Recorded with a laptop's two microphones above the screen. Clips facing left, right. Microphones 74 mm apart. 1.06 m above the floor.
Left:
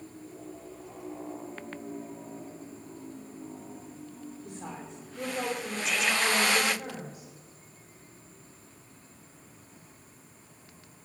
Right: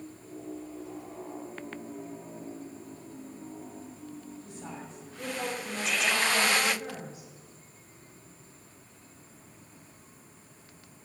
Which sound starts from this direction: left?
A woman speaking, at 4.5 s.